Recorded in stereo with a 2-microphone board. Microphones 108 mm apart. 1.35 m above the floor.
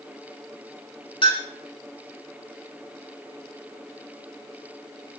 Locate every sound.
1.2 s a clink: 50° left (ahead or behind), 1.0 m